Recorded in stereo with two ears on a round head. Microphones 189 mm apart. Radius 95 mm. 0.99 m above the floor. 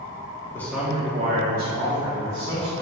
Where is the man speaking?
10° left (ahead or behind), 0.5 m; by 2.8 s 70° right (ahead or behind), 1.4 m.